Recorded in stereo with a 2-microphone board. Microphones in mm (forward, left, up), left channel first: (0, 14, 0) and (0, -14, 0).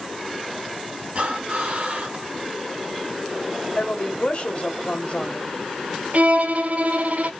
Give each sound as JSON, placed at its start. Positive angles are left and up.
{"t": 1.1, "sound": "breathing", "side_deg": -50, "distance_m": 1.8}
{"t": 3.8, "sound": "a woman speaking", "side_deg": 50, "distance_m": 2.0}
{"t": 6.1, "sound": "a violin", "side_deg": -50, "distance_m": 0.7}